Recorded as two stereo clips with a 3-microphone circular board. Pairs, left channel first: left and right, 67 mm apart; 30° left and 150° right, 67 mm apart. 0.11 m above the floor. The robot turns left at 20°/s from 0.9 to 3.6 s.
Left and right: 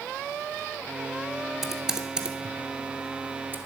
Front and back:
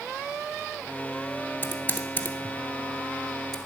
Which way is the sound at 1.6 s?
10° right.